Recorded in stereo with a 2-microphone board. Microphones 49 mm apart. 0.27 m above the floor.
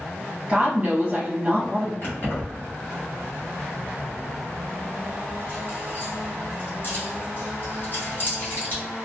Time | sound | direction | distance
0.5 | a woman speaking | 25° right (ahead or behind) | 1.1 m
2.0 | keys jangling | 40° left (ahead or behind) | 1.1 m